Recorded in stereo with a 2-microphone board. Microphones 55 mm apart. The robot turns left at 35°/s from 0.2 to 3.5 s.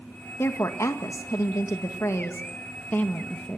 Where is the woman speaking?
125° left, 1.8 m; by 3.6 s 15° left, 1.8 m.